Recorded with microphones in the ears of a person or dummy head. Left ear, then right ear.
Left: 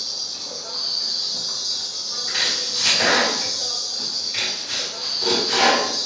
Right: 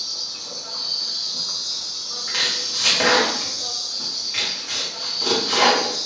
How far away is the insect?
About 1.0 m.